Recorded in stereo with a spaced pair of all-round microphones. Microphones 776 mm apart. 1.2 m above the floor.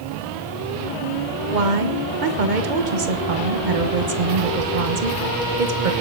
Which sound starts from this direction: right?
A woman speaking, at 1.5 s.